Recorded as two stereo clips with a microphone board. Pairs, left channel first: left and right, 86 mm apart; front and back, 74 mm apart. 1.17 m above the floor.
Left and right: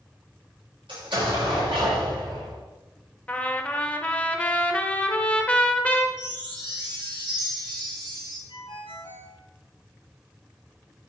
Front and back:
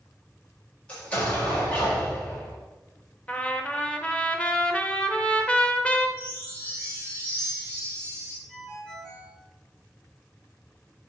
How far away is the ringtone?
About 1.7 m.